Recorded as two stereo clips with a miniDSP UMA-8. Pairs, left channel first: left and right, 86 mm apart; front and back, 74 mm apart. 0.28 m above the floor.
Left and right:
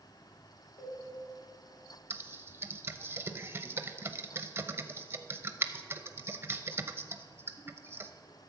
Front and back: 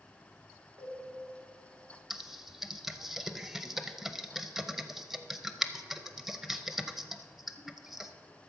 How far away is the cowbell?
About 2.5 m.